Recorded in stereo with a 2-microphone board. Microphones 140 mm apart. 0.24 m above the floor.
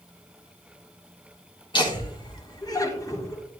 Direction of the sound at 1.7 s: 35° left (ahead or behind).